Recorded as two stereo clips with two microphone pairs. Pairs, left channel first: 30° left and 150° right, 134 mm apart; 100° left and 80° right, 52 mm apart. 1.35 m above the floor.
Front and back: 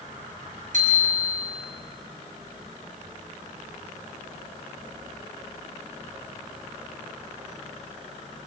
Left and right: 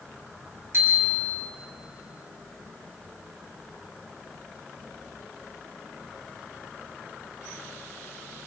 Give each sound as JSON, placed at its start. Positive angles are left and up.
{"t": 0.7, "sound": "a bicycle bell", "azimuth_deg": -125, "distance_m": 6.5}